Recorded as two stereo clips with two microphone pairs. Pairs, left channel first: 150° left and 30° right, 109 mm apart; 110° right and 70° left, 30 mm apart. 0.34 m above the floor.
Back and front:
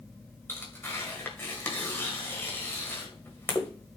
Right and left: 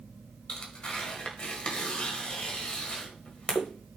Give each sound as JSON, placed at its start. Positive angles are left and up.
{"t": 0.5, "sound": "tearing paper", "azimuth_deg": -145, "distance_m": 1.9}